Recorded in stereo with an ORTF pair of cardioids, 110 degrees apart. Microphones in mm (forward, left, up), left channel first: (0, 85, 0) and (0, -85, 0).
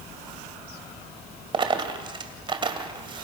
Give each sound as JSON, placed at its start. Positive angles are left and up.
{"t": 1.5, "sound": "a dropped coin", "azimuth_deg": -30, "distance_m": 2.5}